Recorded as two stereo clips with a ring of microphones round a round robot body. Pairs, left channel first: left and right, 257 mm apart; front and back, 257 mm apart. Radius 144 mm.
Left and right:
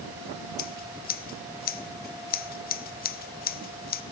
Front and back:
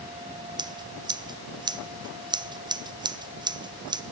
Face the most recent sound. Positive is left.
turn(degrees=115)